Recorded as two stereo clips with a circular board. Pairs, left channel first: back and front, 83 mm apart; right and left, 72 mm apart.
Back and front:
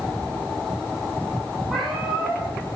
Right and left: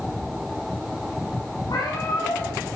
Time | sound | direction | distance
1.7 | a cat meowing | 90° right | 5 m